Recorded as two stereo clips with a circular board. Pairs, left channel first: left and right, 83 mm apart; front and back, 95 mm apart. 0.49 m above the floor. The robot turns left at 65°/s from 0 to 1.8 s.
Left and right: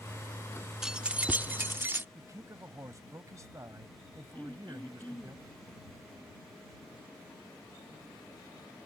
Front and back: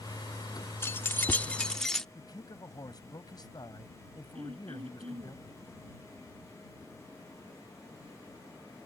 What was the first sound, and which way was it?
Keys jangling, 15° right.